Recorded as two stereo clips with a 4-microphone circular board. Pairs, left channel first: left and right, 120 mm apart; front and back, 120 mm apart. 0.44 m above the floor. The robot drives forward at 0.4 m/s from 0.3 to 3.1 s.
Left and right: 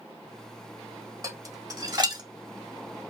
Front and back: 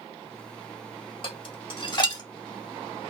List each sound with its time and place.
1.2 s dishes clattering: 35° right, 1.4 m; by 2.2 s 50° right, 1.1 m